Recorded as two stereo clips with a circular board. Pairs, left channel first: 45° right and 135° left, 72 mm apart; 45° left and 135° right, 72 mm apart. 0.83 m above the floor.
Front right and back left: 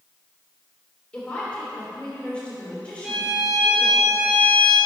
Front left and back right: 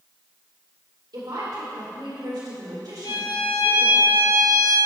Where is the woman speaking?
120° right, 3 m.